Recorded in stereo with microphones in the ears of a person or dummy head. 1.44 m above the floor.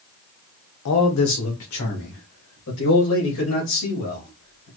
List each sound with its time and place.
0.8 s a man speaking: 80° left, 0.8 m; by 4.7 s 75° left (ahead or behind), 4 m